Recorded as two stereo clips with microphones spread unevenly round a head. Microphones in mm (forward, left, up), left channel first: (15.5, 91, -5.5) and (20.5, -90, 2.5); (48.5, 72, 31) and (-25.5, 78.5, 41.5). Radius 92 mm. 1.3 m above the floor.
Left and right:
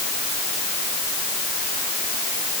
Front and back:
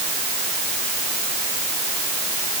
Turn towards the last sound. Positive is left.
No sound to turn to.